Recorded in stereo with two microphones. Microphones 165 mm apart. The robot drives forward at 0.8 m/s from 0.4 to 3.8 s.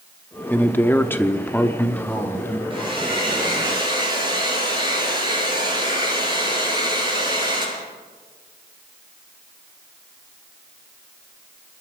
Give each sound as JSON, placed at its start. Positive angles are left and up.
{"t": 0.5, "sound": "a man speaking", "side_deg": 10, "distance_m": 0.9}
{"t": 2.7, "sound": "a hair dryer", "side_deg": -30, "distance_m": 8.0}